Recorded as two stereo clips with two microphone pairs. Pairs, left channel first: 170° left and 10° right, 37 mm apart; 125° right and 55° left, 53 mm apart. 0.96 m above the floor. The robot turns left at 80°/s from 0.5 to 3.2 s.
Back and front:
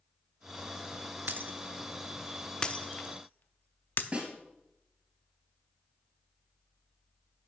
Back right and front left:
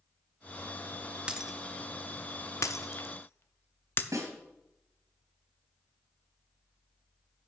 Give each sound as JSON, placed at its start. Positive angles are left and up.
{"t": 1.3, "sound": "breaking glass", "azimuth_deg": -15, "distance_m": 0.6}
{"t": 4.1, "sound": "a snare drum", "azimuth_deg": 40, "distance_m": 2.5}